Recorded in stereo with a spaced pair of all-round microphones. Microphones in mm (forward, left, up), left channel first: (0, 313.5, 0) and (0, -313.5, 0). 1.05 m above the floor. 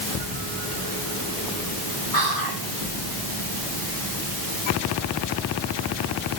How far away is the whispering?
About 6 m.